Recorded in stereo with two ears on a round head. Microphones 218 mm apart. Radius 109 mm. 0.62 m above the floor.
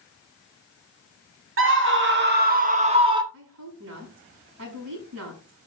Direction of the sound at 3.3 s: 55° right (ahead or behind).